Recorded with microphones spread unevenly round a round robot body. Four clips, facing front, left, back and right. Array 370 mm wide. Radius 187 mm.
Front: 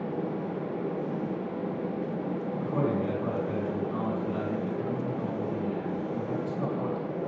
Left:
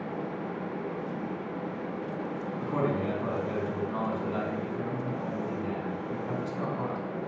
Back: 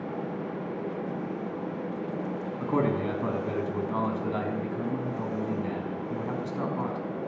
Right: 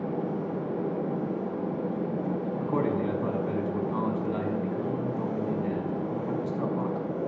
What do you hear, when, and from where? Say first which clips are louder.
2.6 s a man speaking: right 1 dB, back 3 dB; straight behind, 6 m